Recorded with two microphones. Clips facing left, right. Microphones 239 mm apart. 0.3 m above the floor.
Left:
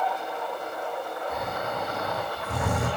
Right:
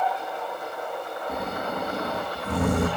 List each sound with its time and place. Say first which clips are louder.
1.3 s snoring: right 5 dB; 40° right (ahead or behind), 8.5 m